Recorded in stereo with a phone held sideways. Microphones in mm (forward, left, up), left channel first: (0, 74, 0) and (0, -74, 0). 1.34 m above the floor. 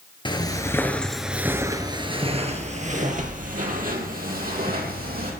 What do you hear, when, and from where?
0.2 s footsteps: 30° left (ahead or behind), 1.7 m; by 5.3 s 70° right (ahead or behind), 4 m